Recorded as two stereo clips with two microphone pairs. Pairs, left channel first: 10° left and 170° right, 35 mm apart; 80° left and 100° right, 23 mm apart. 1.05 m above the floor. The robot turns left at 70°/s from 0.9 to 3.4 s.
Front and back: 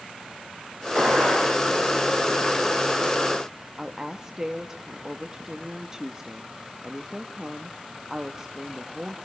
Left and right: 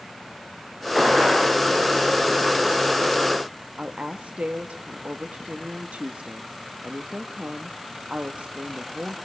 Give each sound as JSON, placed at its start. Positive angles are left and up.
{"t": 0.9, "sound": "a gunshot", "azimuth_deg": -150, "distance_m": 9.5}
{"t": 3.8, "sound": "a woman speaking", "azimuth_deg": -100, "distance_m": 1.1}